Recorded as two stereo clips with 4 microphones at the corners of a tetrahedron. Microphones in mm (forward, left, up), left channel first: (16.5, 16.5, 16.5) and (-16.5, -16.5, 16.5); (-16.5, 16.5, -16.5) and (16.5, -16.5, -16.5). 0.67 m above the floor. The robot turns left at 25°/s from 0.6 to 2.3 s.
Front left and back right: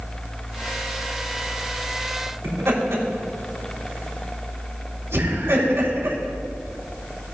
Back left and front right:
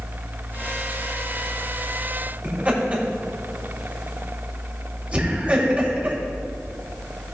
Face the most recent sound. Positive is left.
turn(degrees=-110)